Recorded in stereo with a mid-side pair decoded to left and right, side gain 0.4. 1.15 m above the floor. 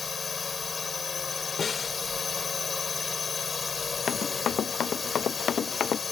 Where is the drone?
40° left.